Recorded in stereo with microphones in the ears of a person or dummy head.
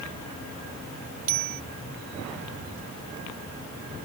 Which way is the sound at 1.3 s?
50° right (ahead or behind).